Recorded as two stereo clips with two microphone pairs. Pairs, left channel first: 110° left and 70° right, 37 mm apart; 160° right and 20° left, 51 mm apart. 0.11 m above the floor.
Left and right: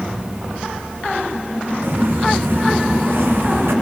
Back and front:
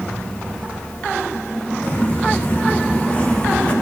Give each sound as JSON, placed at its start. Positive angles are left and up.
{"t": 1.8, "sound": "footsteps", "azimuth_deg": -100, "distance_m": 8.5}